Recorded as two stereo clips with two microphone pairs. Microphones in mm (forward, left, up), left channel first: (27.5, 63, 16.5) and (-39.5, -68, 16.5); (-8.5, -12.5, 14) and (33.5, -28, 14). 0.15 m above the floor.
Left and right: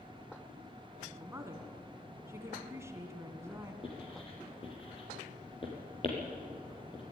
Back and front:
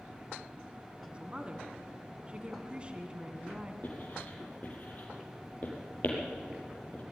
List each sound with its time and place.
1.1 s a woman speaking: 60° right, 1.8 m
3.8 s writing: 115° left, 5 m